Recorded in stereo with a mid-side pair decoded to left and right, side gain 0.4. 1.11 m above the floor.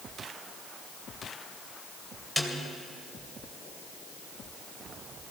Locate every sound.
2.4 s a snare drum: 5° right, 2.5 m